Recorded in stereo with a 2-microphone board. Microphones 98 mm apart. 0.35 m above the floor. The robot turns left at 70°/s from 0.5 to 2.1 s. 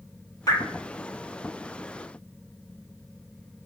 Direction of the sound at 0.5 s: 35° left (ahead or behind).